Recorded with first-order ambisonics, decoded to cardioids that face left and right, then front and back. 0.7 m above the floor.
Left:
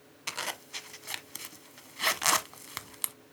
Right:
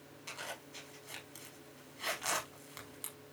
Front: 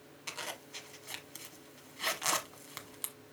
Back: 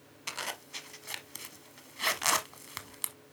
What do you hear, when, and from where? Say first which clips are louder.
0.3 s a zipper: left 9 dB, back 4 dB; 110° left, 0.7 m